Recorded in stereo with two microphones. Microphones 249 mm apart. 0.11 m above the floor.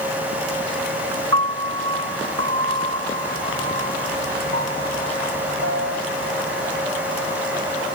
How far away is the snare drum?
I don't hear a snare drum.